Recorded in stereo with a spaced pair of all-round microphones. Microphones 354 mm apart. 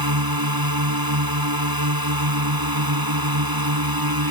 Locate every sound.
0.0 s a drone: 85° right